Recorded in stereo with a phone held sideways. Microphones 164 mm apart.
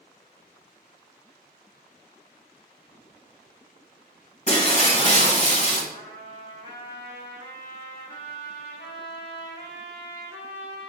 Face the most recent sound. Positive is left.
turn(degrees=75)  # may be behind; listen again after turning